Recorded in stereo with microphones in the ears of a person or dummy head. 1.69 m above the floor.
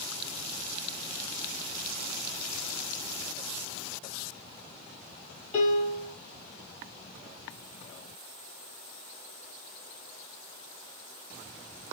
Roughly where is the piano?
Left.